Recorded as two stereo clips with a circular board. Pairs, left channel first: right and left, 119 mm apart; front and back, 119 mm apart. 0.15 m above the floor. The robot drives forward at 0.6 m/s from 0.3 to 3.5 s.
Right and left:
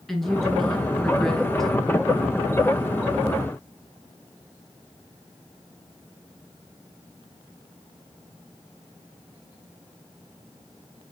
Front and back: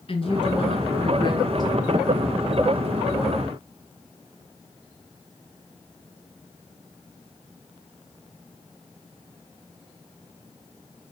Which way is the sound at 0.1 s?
5° right.